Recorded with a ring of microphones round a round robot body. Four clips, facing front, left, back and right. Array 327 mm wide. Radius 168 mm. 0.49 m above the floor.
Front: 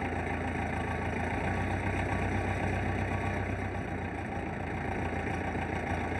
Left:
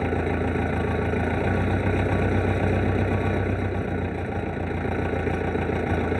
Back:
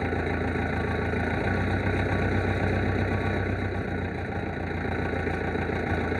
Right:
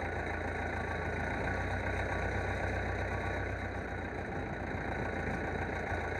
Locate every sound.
0.0 s an engine running: 110° left